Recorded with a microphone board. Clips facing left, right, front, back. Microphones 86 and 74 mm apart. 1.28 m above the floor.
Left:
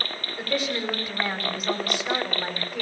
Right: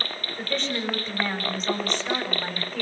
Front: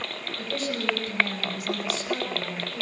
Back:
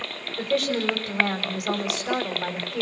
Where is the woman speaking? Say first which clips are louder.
Left 2 dB, back 7 dB; 170° left, 5 m.